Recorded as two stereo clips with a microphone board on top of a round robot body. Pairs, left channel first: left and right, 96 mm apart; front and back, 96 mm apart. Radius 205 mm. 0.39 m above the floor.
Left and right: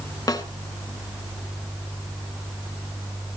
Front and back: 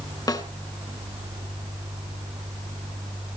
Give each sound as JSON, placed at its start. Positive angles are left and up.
{"t": 0.3, "sound": "a snare drum", "azimuth_deg": 40, "distance_m": 2.0}